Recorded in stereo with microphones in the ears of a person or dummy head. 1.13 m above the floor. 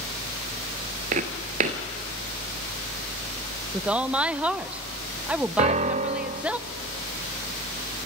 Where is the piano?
35° right (ahead or behind), 0.7 m.